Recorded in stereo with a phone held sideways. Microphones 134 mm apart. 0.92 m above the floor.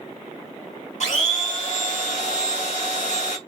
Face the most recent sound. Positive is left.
turn(degrees=60)  # may be behind; listen again after turning